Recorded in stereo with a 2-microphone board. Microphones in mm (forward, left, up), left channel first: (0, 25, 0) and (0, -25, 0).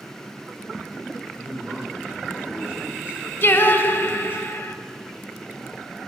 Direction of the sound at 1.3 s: 30° right (ahead or behind).